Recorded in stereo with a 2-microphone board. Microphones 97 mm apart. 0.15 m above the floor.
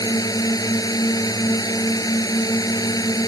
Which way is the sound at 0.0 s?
40° left (ahead or behind).